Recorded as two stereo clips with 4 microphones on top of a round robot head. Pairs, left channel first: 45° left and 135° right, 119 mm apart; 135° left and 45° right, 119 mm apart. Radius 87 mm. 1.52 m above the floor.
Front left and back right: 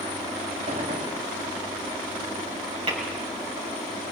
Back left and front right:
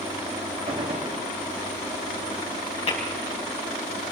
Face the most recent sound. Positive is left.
turn(degrees=180)